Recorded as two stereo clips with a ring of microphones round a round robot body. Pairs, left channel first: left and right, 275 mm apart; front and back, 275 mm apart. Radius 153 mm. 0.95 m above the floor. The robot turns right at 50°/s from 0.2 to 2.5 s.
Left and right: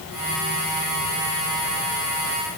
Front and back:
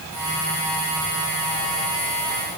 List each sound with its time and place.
Only background noise.